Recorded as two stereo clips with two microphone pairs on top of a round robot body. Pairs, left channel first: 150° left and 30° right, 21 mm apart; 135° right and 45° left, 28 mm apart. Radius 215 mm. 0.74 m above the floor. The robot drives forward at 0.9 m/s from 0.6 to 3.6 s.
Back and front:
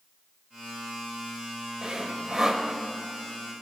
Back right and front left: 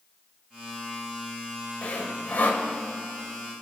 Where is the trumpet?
No trumpet in this recording.